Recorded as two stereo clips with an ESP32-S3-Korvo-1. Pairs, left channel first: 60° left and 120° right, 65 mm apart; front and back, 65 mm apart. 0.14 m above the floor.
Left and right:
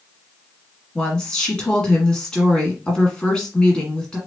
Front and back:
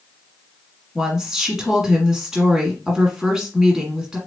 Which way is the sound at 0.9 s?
110° left.